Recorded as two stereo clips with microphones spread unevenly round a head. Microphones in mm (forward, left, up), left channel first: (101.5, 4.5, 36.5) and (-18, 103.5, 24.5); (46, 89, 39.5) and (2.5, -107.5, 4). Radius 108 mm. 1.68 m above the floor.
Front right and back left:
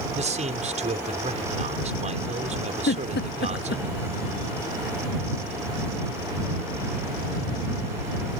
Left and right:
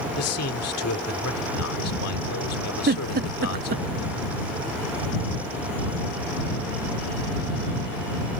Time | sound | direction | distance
0.1 | a man speaking | 95° left | ?
2.9 | a giggle | 55° right | ?